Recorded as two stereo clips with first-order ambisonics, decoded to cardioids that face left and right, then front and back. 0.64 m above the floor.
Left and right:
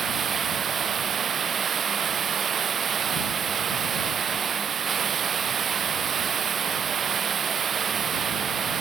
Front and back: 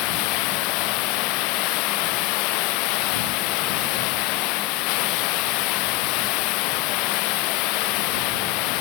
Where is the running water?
25° right.